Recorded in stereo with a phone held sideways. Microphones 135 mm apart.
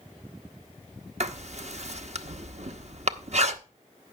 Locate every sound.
1.2 s writing: 55° right (ahead or behind), 0.9 m